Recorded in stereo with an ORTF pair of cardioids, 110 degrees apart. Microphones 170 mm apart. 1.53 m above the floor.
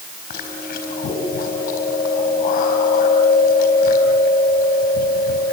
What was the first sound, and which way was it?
Chewing, 60° left.